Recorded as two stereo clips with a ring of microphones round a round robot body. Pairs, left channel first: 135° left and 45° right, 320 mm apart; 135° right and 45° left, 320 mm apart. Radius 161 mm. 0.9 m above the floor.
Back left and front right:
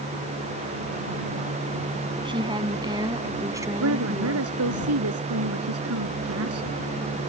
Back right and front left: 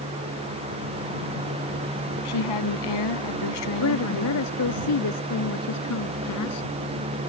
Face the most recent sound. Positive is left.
turn(degrees=-90)